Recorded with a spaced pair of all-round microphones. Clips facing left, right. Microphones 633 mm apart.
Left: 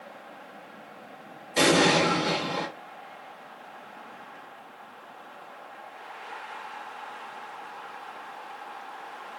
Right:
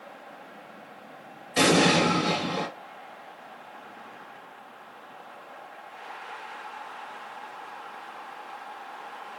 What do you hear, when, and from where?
1.6 s an explosion: 40° right (ahead or behind), 1.2 m